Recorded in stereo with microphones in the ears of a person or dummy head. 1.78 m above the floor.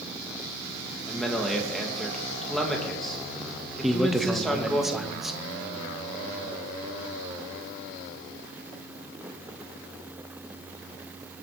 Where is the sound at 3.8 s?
5° right (ahead or behind), 1.0 m.